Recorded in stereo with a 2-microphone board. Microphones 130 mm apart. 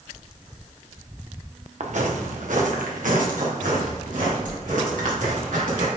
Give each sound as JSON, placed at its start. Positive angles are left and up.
{"t": 1.8, "sound": "footsteps", "side_deg": -60, "distance_m": 1.5}